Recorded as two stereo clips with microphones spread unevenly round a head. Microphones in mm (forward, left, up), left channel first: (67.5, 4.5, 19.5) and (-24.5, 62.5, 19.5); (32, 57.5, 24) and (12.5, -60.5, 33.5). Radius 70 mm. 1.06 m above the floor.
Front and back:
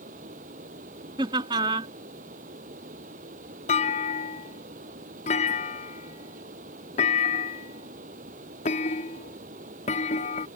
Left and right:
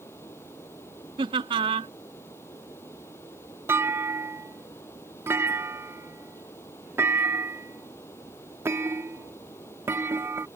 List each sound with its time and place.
0.0 s a fan: 155° left
1.2 s laughter: 155° right
3.7 s a clunk: 30° right